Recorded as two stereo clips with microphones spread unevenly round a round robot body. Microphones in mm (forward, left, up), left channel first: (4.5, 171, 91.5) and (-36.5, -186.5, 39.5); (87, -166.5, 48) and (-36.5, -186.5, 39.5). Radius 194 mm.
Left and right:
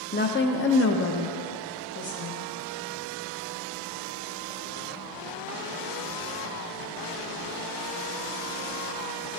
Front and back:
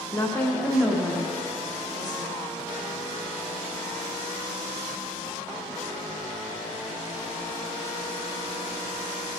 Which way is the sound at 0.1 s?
40° left.